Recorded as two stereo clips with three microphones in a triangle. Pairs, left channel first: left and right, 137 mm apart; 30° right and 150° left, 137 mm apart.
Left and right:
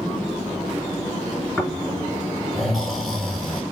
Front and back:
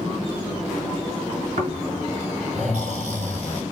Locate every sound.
1.6 s snoring: straight behind, 4 m